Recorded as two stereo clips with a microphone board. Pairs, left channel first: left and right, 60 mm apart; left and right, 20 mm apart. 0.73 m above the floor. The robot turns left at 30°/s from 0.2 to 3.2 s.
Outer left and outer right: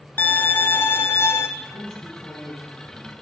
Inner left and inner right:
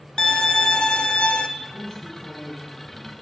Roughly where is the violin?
Behind left.